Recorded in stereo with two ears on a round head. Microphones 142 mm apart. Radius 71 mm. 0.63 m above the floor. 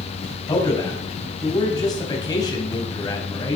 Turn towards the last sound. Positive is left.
turn(degrees=25)  # may be behind; listen again after turning